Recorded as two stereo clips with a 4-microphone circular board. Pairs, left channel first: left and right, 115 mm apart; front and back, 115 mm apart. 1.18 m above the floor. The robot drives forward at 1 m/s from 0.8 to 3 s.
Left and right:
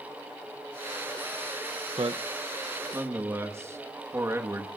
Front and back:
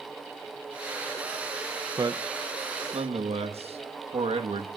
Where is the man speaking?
125° right, 0.8 m; by 4.7 s 155° right, 1.6 m.